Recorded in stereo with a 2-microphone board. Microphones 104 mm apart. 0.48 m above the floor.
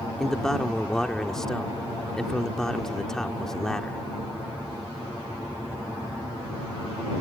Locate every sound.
0.2 s a man speaking: 5° left (ahead or behind)